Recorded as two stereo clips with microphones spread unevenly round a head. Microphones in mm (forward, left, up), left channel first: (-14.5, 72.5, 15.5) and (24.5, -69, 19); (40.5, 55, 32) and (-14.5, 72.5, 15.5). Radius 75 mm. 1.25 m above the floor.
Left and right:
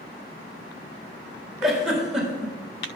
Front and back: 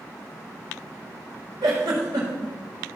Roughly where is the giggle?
Behind.